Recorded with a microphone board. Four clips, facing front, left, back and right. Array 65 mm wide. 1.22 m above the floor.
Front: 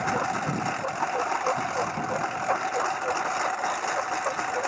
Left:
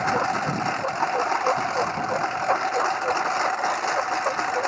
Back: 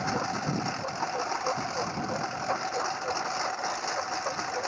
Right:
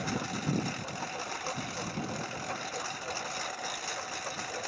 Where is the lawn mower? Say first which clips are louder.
Left 12 dB, front 4 dB; 80° left.